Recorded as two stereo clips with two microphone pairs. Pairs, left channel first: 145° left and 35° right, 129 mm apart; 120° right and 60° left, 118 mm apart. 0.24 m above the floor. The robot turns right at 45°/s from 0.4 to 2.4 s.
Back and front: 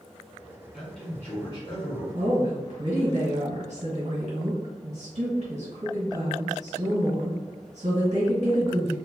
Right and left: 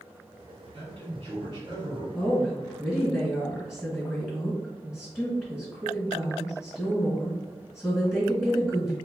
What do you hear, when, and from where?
0.7 s a man speaking: 55° left, 2.0 m; by 2.0 s 110° left, 2.0 m
2.1 s a woman speaking: 40° right, 1.7 m; by 9.0 s 30° right, 1.7 m